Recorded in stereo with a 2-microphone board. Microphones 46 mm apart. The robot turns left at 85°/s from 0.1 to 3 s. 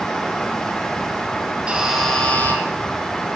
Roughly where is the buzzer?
Behind right.